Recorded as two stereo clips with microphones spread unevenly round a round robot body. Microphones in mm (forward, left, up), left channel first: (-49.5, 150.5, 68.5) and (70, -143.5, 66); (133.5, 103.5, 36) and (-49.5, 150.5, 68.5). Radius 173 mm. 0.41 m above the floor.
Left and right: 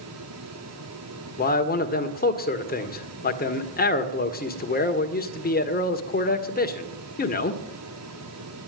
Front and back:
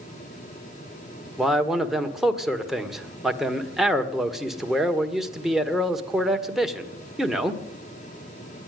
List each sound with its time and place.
1.4 s a man speaking: 65° left, 1.8 m